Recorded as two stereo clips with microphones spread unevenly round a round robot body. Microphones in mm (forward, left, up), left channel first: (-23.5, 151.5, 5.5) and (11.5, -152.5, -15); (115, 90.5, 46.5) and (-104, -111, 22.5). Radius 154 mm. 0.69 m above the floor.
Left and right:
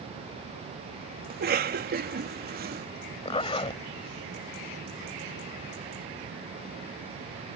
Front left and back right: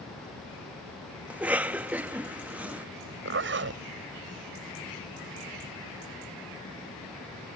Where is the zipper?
170° left.